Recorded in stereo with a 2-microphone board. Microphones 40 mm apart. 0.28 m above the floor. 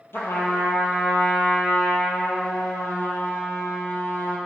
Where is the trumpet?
65° left (ahead or behind), 2.0 m.